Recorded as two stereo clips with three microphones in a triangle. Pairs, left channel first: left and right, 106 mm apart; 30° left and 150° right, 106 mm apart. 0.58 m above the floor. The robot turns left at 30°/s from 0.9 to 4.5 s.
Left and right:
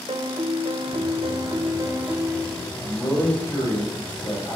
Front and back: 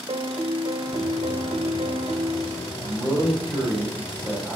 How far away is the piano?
About 0.6 m.